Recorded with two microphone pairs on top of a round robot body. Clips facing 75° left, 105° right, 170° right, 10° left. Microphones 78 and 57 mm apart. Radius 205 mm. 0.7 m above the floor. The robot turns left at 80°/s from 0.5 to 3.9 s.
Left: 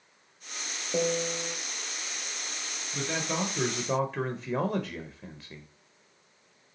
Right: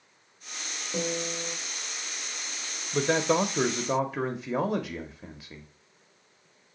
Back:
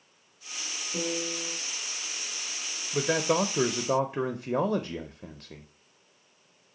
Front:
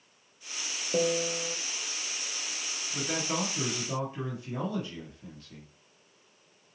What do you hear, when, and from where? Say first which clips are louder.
0.9 s a piano: left 3 dB, front 5 dB; 15° left, 0.8 m; by 1.6 s 35° right, 0.8 m
2.9 s a man speaking: right 8 dB, back 7 dB; 120° right, 0.7 m; by 5.7 s 165° left, 0.7 m